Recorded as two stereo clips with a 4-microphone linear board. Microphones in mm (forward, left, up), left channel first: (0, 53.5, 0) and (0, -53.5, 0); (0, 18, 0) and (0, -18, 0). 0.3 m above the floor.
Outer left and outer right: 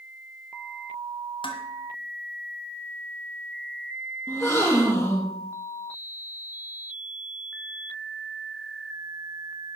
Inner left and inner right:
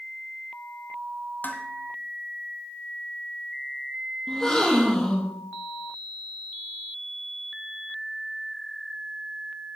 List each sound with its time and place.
1.4 s dishes clattering: 55° left (ahead or behind), 1.6 m
4.3 s a gasp: 25° left (ahead or behind), 3 m